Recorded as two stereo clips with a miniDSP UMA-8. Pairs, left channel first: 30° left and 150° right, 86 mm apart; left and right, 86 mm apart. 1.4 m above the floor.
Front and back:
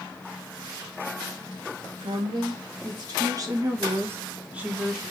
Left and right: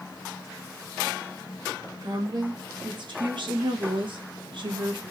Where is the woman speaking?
125° right, 1.8 m; by 5.0 s 65° right, 1.1 m.